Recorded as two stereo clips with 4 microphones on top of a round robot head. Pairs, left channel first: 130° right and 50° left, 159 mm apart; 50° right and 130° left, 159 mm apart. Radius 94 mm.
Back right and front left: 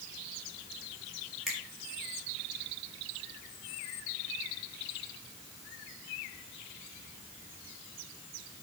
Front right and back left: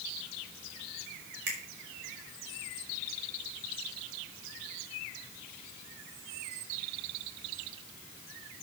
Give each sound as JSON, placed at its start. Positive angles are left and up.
{"t": 1.5, "sound": "a finger snap", "azimuth_deg": 140, "distance_m": 4.5}